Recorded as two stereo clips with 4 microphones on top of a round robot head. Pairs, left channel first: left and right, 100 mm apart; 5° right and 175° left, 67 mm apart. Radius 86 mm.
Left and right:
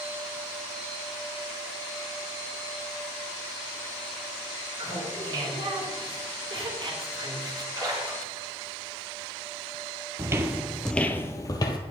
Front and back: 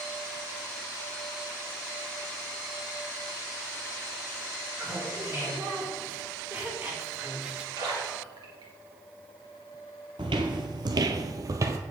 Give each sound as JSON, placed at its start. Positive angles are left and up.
{"t": 4.8, "sound": "laughter", "azimuth_deg": -120, "distance_m": 4.5}
{"t": 7.8, "sound": "a splash", "azimuth_deg": -145, "distance_m": 2.0}
{"t": 10.2, "sound": "footsteps", "azimuth_deg": -145, "distance_m": 0.8}